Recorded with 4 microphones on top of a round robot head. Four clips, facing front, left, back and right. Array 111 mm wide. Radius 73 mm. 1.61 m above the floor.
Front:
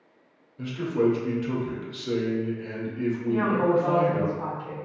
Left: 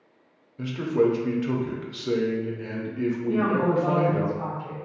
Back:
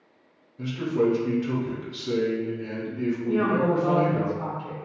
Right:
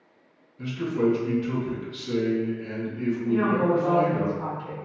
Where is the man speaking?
85° left, 0.7 m.